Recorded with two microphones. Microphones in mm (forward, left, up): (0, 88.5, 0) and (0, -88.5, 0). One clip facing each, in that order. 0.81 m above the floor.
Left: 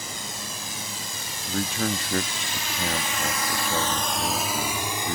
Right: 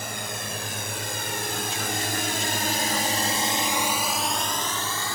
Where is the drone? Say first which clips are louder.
Right 3 dB; 65° right (ahead or behind); by 5.2 s 20° left (ahead or behind).